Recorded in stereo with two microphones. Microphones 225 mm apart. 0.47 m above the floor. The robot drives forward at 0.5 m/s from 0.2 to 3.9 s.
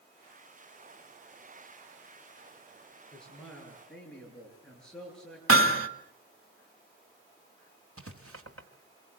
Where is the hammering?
70° right (ahead or behind), 1.7 m.